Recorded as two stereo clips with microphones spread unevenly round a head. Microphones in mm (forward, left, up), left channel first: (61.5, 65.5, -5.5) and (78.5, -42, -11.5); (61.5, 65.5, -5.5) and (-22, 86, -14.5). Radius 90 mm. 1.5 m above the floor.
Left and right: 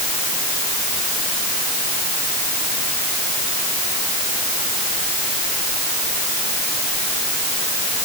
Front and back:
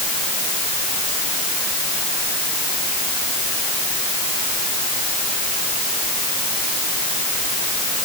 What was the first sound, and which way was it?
Only background noise.